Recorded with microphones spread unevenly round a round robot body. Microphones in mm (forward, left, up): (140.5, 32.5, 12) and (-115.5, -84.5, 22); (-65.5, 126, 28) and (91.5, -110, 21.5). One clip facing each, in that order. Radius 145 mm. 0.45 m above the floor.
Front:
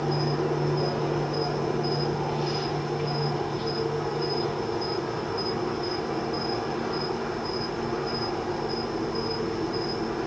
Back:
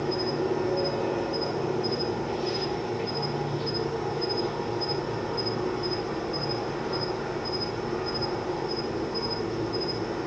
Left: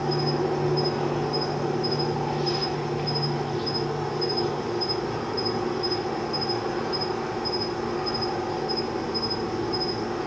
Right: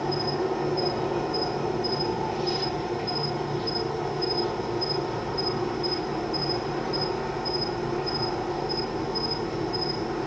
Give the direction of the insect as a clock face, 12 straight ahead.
8 o'clock.